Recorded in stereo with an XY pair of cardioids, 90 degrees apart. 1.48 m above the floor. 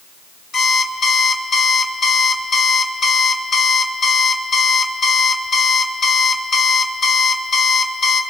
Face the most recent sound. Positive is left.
turn(degrees=70)